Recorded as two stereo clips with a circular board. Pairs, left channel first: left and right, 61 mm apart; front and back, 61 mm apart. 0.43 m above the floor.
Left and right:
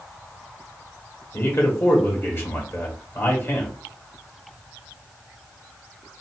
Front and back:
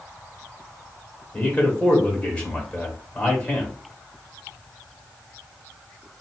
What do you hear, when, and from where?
1.3 s a man speaking: 65° left, 1.5 m